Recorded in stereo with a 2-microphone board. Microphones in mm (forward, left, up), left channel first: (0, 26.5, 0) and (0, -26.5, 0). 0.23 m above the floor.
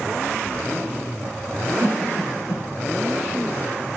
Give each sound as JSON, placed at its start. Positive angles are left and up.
{"t": 1.8, "sound": "a cough", "side_deg": -5, "distance_m": 2.5}